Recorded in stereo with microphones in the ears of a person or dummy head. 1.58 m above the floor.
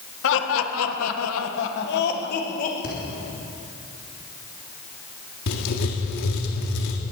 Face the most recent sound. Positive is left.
turn(degrees=60)  # may be behind; listen again after turning